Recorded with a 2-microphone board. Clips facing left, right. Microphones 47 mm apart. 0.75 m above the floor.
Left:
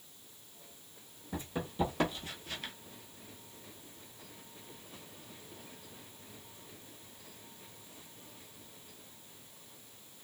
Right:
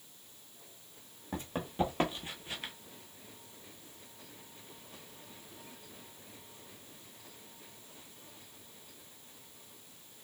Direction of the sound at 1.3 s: 50° right (ahead or behind).